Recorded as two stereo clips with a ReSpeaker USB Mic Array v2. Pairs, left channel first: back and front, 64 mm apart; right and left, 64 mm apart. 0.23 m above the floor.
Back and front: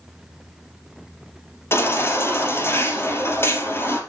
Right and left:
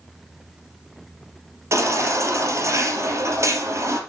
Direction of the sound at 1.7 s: 130° left.